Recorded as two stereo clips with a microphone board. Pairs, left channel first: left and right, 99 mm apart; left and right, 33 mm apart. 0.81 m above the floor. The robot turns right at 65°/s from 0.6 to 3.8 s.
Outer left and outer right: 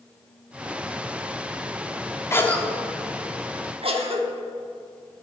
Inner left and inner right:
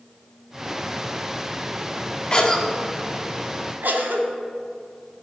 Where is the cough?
25° left (ahead or behind), 1.6 m; by 4.3 s 65° right (ahead or behind), 1.6 m.